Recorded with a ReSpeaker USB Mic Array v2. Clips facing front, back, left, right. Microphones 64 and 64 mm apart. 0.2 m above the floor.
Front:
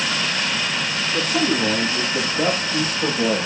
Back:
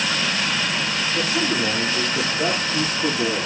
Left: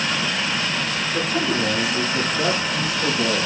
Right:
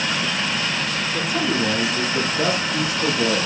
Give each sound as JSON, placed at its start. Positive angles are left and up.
{"t": 1.1, "sound": "a man speaking", "azimuth_deg": -10, "distance_m": 6.0}